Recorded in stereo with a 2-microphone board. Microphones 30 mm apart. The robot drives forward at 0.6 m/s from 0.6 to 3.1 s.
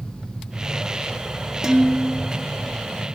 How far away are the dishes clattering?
About 0.7 m.